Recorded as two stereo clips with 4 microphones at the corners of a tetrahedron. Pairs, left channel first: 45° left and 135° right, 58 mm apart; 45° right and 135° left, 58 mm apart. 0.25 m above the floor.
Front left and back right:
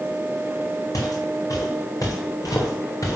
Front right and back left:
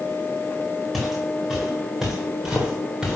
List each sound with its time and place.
0.9 s footsteps: 45° left, 4 m; by 3.2 s 55° left, 3 m